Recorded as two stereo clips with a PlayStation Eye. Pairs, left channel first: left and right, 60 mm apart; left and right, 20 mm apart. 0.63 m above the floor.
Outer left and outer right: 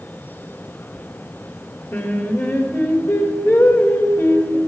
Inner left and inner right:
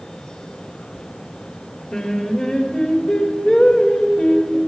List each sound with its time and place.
1.9 s singing: 45° left (ahead or behind), 1.9 m